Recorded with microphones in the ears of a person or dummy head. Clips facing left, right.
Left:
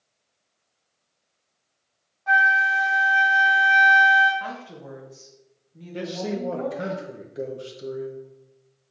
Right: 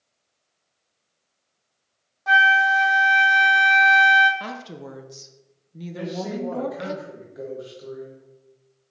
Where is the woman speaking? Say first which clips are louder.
Right 1 dB; 50° right (ahead or behind), 0.6 m.